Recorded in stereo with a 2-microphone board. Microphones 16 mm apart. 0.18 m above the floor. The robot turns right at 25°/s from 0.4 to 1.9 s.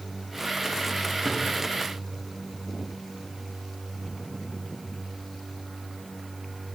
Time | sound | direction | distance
1.2 | a drawer | 30° right (ahead or behind) | 5.5 m